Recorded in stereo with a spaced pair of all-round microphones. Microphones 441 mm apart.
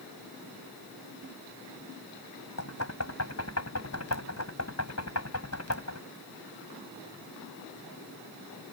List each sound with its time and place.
2.6 s knocking: 35° left (ahead or behind)